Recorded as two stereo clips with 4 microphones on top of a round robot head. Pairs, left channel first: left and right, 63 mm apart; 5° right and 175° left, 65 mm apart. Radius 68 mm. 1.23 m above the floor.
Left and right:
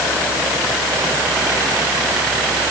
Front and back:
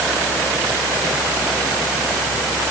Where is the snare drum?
I don't hear a snare drum.